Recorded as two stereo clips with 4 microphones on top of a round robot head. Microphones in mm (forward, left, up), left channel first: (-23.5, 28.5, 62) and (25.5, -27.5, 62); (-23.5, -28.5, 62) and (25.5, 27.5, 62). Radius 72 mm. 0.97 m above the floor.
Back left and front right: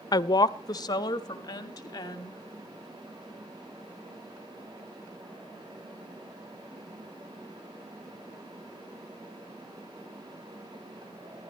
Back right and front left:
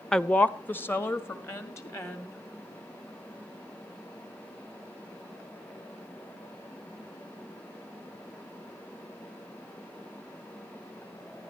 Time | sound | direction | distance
0.1 | a woman speaking | 145° left | 0.6 m